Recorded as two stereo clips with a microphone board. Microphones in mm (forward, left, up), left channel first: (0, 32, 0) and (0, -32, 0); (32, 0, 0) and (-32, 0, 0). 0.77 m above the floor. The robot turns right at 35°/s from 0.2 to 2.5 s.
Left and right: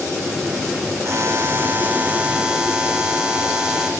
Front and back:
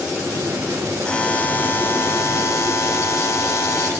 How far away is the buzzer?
About 0.7 m.